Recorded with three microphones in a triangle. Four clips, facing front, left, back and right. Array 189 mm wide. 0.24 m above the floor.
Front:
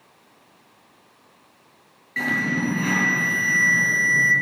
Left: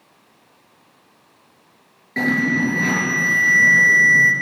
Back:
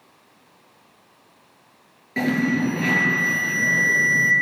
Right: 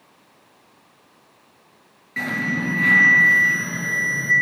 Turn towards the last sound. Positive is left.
turn(degrees=145)